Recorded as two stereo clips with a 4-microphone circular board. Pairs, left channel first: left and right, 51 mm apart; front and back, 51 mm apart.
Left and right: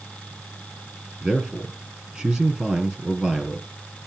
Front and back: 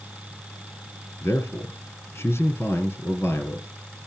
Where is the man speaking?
20° right, 2.5 m.